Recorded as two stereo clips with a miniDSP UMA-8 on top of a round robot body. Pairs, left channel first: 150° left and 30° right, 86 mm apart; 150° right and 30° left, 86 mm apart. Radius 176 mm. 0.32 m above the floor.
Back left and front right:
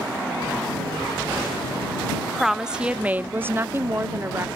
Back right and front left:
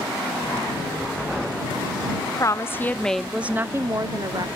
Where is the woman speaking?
120° right; by 4.5 s 25° left.